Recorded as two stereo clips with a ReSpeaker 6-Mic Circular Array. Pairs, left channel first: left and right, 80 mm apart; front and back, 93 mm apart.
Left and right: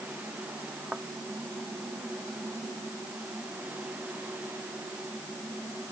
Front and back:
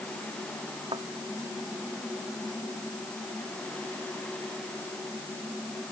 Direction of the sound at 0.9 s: 165° right.